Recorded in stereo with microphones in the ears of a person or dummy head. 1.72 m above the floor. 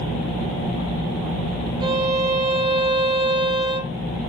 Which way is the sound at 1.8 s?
25° right (ahead or behind).